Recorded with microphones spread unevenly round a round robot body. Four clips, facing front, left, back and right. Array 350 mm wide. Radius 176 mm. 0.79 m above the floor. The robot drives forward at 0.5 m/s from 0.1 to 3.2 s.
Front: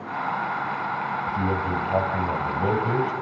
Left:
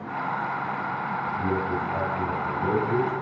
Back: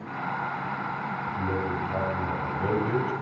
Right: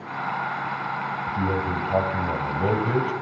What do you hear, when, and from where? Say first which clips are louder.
1.3 s a man speaking: right 1 dB, front 2 dB; 45° right, 5 m; by 3.1 s 50° right, 4 m